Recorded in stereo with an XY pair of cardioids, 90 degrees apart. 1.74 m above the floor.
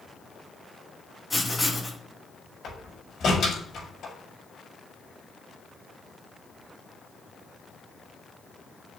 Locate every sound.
1.3 s writing: 10° left, 2.5 m
2.6 s a door slam: 60° left, 5 m